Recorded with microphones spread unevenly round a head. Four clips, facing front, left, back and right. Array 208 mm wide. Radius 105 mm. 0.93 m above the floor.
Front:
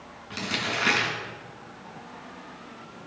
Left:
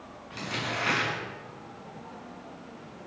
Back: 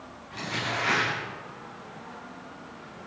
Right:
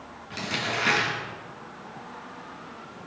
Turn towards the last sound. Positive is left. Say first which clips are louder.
# right 3 dB, front 1 dB
turn(degrees=-20)